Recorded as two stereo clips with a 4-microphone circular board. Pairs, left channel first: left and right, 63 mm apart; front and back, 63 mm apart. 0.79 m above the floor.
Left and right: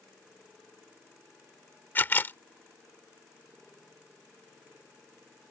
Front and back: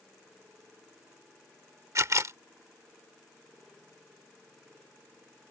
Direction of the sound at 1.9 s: 145° left.